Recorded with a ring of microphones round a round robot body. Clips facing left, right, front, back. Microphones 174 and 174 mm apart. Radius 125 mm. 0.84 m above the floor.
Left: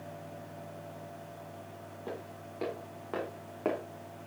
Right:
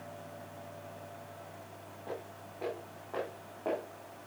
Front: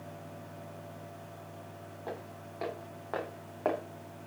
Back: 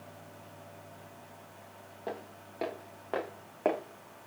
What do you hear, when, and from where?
2.1 s footsteps: 120° left, 5.5 m; by 3.8 s 110° left, 2.5 m